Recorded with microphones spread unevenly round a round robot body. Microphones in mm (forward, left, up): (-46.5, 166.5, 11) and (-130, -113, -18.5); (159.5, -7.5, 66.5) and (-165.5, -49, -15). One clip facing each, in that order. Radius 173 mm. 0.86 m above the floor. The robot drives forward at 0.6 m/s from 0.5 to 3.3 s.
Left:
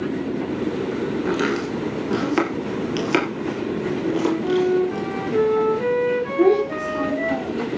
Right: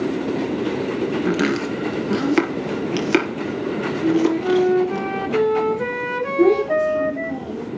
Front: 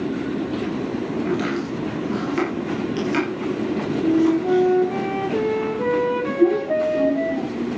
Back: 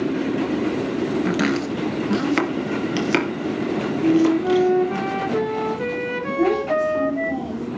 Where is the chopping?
155° right, 2.5 m; by 5.0 s 165° right, 4 m.